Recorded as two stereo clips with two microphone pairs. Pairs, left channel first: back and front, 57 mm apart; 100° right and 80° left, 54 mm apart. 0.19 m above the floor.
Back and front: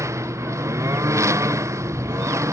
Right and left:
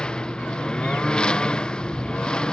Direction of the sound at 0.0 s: 25° right.